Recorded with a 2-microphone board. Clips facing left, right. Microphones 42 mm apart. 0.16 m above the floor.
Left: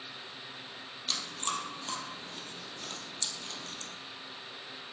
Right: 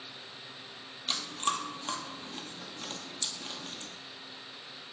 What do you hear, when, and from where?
1.1 s chewing: 25° right (ahead or behind), 0.6 m